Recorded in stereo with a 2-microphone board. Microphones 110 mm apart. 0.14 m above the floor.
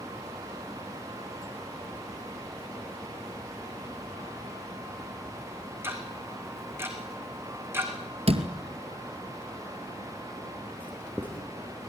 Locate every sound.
5.8 s ticking: 20° right (ahead or behind), 3.5 m
8.3 s a door slam: 60° right (ahead or behind), 2 m
10.8 s writing: 15° left (ahead or behind), 4.5 m